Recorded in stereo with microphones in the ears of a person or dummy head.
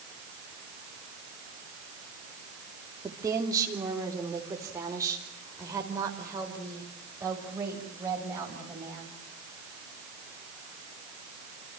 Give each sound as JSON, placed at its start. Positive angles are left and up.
{"t": 3.0, "sound": "a woman speaking", "side_deg": -15, "distance_m": 3.0}